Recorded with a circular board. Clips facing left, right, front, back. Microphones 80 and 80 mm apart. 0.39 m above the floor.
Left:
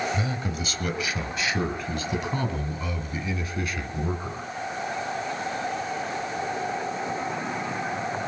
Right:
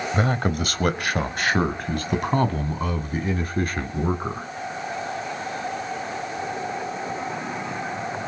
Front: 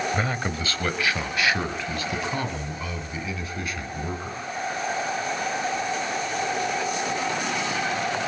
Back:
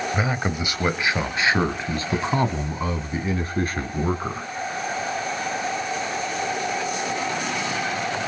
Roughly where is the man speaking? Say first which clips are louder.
Right 6 dB, back 2 dB; right.